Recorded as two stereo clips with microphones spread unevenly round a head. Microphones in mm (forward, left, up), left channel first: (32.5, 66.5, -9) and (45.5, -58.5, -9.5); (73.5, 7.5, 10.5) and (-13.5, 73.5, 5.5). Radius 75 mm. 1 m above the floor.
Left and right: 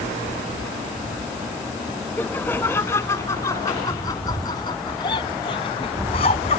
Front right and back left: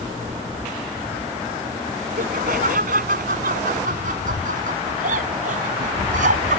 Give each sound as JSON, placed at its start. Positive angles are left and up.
{"t": 2.2, "sound": "laughter", "azimuth_deg": 175}